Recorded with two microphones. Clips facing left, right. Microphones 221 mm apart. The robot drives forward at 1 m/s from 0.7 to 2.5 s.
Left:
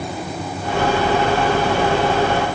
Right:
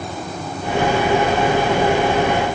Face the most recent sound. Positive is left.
No sound to turn to.